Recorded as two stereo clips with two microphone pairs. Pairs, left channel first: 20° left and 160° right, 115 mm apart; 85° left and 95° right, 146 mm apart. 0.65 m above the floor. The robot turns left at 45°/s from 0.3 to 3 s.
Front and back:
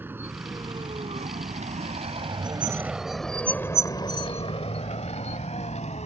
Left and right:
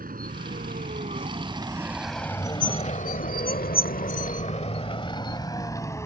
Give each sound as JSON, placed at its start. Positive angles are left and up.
{"t": 0.0, "sound": "a vehicle", "azimuth_deg": -90}